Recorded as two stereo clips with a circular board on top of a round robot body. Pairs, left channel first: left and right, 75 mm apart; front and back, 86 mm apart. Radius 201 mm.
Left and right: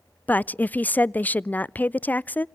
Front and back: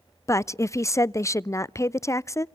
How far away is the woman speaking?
About 0.5 m.